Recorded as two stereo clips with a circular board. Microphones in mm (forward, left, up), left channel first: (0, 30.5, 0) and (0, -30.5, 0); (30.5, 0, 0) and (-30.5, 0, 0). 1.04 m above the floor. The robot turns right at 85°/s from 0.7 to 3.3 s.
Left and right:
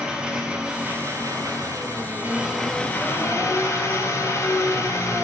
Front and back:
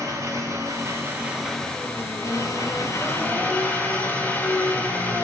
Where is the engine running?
160° right, 1.3 m; by 5.2 s 60° left, 1.3 m.